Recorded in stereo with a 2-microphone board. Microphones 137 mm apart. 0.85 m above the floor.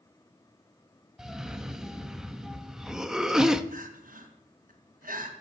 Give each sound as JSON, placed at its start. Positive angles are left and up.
{"t": 1.2, "sound": "a cough", "side_deg": -5, "distance_m": 1.0}
{"t": 3.7, "sound": "crying", "side_deg": -80, "distance_m": 2.5}